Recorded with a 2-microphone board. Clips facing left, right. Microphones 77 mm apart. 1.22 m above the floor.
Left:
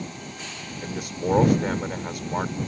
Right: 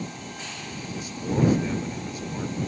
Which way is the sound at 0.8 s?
60° left (ahead or behind).